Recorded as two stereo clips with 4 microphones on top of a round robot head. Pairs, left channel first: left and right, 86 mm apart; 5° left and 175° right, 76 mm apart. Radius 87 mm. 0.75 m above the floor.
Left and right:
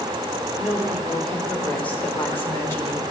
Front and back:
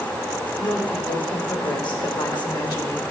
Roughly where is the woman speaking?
Ahead.